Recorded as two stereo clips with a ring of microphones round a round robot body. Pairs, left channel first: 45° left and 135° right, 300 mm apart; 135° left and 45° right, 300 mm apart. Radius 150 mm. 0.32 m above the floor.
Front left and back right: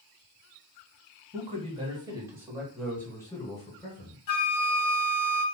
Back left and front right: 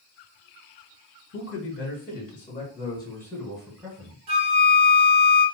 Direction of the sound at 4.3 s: Straight ahead.